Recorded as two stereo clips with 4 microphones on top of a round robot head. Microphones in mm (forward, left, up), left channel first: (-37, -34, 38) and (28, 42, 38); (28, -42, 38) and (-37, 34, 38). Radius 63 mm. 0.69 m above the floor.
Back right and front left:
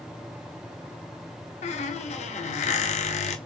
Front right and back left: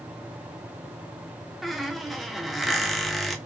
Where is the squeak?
140° right, 0.6 m.